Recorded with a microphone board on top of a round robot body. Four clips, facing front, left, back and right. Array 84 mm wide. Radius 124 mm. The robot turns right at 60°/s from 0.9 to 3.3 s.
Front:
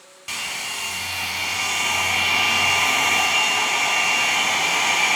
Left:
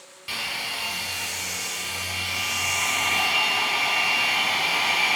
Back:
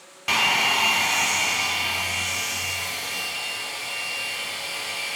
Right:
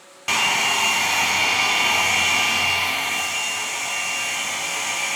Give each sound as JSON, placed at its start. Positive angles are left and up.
{"t": 0.3, "sound": "a hair dryer", "azimuth_deg": -130, "distance_m": 1.0}